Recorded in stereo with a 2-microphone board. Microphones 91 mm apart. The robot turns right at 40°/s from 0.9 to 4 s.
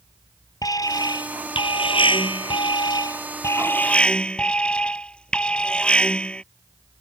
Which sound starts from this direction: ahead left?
An alarm, at 0.6 s.